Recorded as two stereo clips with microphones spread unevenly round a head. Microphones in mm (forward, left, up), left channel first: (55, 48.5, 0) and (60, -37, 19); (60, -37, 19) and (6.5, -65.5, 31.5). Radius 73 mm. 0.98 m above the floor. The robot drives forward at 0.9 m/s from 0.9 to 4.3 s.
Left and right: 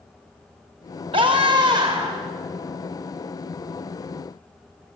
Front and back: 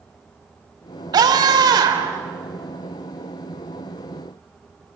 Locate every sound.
1.1 s a scream: 145° right, 3 m; by 2.2 s 155° right, 4 m